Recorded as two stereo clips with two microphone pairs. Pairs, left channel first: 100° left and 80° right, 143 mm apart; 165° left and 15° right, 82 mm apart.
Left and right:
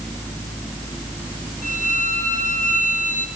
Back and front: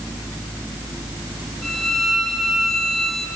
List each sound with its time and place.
1.6 s a violin: 80° left, 4 m